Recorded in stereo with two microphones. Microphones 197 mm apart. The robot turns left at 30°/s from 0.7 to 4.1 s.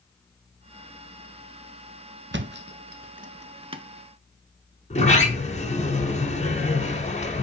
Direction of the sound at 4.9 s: 35° left (ahead or behind).